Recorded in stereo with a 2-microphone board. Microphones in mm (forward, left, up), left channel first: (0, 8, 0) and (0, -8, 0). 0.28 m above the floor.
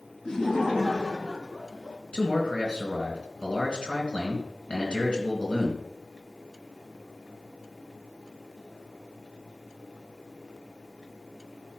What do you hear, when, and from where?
0.2 s laughter: 40° left (ahead or behind), 2 m; by 2.0 s 55° left (ahead or behind), 3 m
2.1 s a man speaking: 65° left (ahead or behind), 3 m